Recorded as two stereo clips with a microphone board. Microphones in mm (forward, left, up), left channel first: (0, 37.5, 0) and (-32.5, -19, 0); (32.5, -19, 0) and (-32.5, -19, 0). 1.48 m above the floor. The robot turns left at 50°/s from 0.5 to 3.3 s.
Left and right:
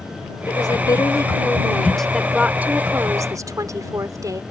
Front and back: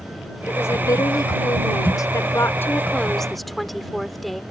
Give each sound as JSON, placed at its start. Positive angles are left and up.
{"t": 0.5, "sound": "a woman speaking", "azimuth_deg": 50}